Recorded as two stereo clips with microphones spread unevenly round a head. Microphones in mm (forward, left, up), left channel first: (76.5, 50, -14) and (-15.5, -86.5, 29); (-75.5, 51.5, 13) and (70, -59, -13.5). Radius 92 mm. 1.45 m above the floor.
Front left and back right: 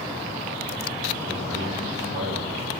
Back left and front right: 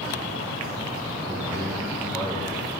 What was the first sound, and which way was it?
A man speaking, 120° right.